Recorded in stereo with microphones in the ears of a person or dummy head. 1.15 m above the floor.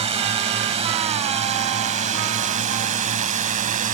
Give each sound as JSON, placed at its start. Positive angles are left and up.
{"t": 0.0, "sound": "a drone", "side_deg": -35}